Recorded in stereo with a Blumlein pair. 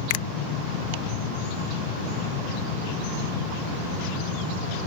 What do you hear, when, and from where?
0.1 s a finger snap: 50° left